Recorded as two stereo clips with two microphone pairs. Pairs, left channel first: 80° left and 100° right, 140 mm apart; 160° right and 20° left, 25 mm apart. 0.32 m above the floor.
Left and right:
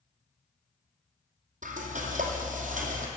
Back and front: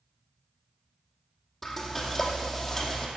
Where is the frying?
80° right, 2 m.